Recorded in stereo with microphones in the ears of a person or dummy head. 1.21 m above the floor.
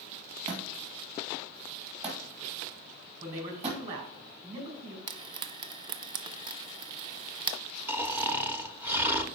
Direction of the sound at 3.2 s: 40° right (ahead or behind).